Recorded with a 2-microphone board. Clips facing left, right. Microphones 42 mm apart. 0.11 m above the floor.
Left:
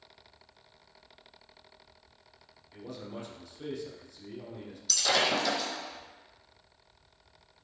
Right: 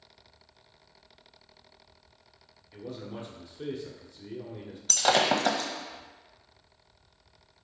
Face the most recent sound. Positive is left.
turn(degrees=-45)  # may be behind; listen again after turning